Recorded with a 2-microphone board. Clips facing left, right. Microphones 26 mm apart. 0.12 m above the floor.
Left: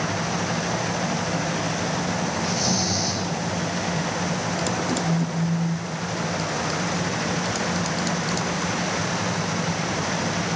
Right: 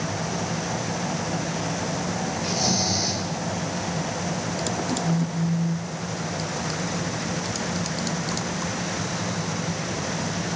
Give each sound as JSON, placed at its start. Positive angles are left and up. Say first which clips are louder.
{"t": 2.4, "sound": "snoring", "louder": "right 2 dB", "side_deg": -10, "distance_m": 7.5}
{"t": 5.0, "sound": "a phone buzzing", "louder": "left 1 dB", "side_deg": -10, "distance_m": 1.3}